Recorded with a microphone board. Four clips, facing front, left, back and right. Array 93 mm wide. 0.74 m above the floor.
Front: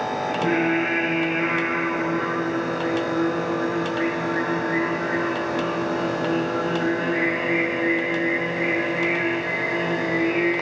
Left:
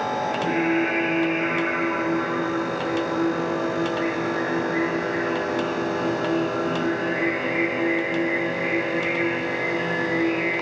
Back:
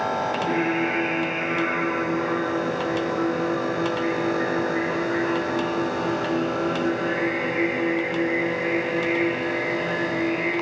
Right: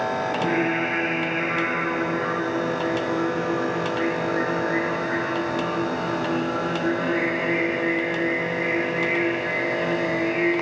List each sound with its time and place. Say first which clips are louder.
0.3 s singing: left 1 dB, front 2 dB; 30° right, 8 m